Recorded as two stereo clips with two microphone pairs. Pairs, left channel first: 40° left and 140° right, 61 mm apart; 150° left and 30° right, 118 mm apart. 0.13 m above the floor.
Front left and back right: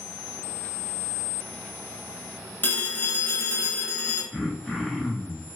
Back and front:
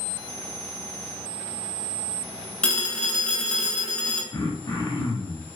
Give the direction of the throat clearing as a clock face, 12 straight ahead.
8 o'clock.